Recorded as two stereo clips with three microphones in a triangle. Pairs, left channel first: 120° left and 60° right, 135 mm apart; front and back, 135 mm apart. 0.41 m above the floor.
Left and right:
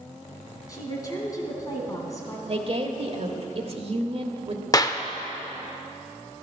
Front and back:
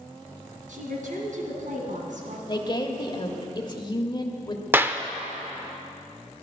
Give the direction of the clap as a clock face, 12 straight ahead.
8 o'clock.